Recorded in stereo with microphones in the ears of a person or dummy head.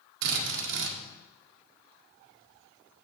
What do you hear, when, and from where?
0.2 s a drill: 65° right (ahead or behind), 1.7 m